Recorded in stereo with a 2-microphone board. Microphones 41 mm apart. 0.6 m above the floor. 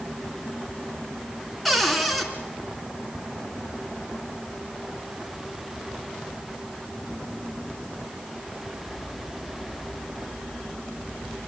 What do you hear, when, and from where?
1.6 s a cupboard door: centre (ahead or behind), 3 m